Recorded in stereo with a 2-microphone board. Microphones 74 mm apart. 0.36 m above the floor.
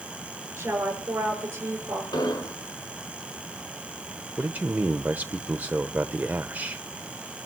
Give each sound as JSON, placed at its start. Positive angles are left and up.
{"t": 0.6, "sound": "a woman speaking", "side_deg": -30, "distance_m": 6.0}
{"t": 2.1, "sound": "an explosion", "side_deg": 70, "distance_m": 3.0}
{"t": 4.4, "sound": "a man speaking", "side_deg": -20, "distance_m": 0.9}